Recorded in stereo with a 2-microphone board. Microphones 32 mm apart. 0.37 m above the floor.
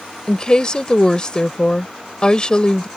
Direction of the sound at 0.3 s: 30° left (ahead or behind).